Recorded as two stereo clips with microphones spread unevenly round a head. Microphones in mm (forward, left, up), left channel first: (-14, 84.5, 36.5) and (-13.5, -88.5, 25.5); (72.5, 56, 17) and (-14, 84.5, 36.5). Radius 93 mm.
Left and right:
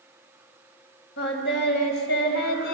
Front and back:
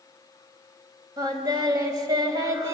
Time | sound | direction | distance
1.2 | singing | 120° left | 4 m